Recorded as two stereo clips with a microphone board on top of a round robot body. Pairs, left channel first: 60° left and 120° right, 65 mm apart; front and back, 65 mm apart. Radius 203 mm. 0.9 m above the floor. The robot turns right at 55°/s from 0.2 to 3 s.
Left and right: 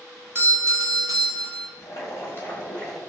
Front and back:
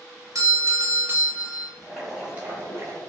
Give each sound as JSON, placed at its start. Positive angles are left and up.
{"t": 0.3, "sound": "a doorbell", "azimuth_deg": -165, "distance_m": 1.0}
{"t": 1.8, "sound": "boiling", "azimuth_deg": 80, "distance_m": 1.4}